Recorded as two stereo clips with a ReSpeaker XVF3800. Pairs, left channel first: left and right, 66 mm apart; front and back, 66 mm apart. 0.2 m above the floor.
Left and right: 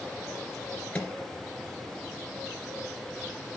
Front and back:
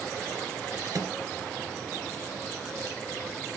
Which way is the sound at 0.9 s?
160° left.